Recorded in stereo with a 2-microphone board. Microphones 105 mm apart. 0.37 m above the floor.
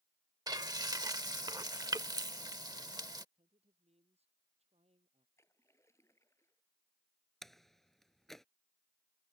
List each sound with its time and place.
0.5 s frying: 35° right (ahead or behind)
3.4 s a man speaking: 75° right (ahead or behind)
5.4 s a splash: 25° left (ahead or behind)
7.4 s a door slam: centre (ahead or behind)